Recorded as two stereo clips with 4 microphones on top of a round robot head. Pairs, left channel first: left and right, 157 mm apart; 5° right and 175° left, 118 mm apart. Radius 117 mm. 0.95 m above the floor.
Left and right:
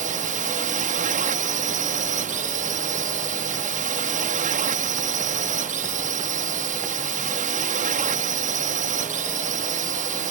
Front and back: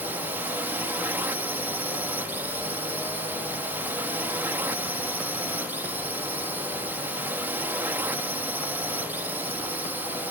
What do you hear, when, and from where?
0.0 s a drone: 110° right